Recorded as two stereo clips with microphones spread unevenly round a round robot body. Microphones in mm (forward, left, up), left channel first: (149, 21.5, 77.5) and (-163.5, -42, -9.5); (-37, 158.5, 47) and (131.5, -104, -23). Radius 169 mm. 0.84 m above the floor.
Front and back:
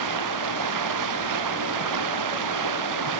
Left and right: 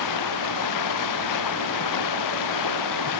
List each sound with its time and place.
0.0 s running water: 160° left